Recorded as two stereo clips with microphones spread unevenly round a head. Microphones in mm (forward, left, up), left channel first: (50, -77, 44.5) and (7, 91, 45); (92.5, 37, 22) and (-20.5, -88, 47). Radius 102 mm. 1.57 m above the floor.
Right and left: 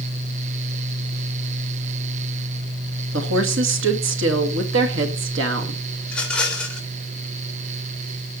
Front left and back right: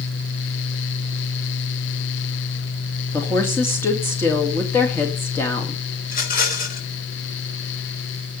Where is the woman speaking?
130° left, 2 m.